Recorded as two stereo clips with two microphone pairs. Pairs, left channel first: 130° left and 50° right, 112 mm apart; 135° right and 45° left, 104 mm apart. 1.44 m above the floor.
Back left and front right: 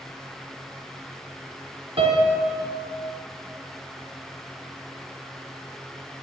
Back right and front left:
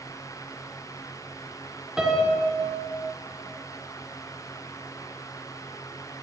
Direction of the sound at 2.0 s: 40° right.